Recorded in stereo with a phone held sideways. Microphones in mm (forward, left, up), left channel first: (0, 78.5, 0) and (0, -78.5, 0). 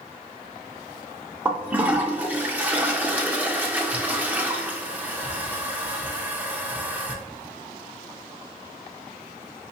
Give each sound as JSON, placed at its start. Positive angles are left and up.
{"t": 1.4, "sound": "a toilet flushing", "side_deg": -10, "distance_m": 0.7}